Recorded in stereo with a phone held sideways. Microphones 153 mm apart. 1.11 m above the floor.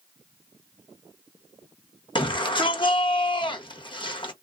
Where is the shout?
30° left (ahead or behind), 1.0 m.